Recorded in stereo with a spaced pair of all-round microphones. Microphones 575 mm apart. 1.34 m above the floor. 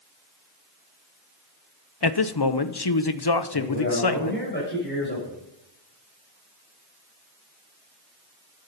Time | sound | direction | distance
2.0 | a man speaking | 45° left (ahead or behind) | 0.7 m
3.5 | a man speaking | 20° left (ahead or behind) | 6.5 m